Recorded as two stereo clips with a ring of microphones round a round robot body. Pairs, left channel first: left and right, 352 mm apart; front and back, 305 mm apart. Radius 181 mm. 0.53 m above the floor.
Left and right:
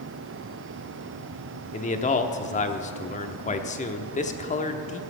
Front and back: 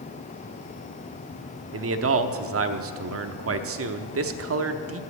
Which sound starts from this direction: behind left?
A man speaking, at 1.7 s.